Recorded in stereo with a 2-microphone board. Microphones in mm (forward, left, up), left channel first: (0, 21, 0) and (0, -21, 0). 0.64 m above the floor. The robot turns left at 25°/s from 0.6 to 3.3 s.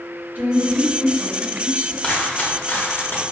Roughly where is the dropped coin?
Left.